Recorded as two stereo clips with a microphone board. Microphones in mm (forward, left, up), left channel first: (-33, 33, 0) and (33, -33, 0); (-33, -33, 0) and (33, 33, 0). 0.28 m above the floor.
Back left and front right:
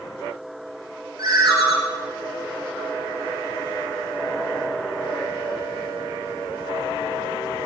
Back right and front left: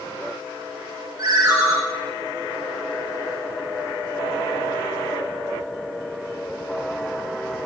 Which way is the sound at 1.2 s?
Straight ahead.